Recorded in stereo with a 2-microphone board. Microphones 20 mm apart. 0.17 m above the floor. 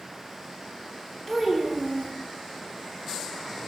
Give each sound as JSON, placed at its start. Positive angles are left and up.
{"t": 1.3, "sound": "a child speaking", "side_deg": 15, "distance_m": 0.7}